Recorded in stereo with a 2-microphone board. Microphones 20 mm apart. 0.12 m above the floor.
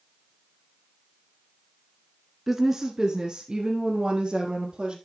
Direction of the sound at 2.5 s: 20° right (ahead or behind).